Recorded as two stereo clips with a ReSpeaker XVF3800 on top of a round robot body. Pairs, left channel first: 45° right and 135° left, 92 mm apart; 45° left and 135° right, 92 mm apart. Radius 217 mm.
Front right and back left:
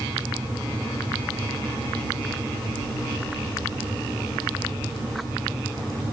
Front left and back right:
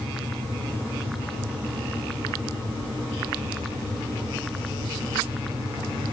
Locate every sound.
Only background noise.